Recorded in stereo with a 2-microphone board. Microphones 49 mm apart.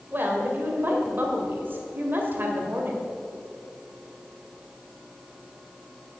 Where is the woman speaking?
45° right (ahead or behind), 1.9 m.